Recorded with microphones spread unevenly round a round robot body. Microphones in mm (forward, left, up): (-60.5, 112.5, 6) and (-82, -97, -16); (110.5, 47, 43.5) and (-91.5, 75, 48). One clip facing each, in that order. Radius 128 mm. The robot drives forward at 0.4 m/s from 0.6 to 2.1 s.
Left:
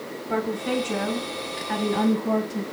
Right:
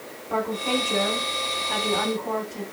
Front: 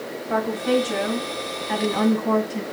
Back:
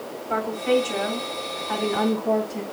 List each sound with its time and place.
0.3 s a woman speaking: 65° left, 6.5 m; by 2.6 s 70° left, 6 m